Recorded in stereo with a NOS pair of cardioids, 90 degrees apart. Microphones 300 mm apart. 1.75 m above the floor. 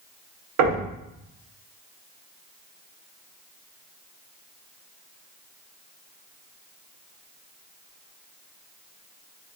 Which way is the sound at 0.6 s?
60° right.